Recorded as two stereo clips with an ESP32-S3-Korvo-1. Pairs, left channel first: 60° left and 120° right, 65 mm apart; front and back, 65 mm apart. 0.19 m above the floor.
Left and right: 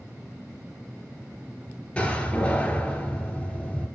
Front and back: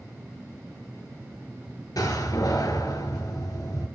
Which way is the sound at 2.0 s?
15° right.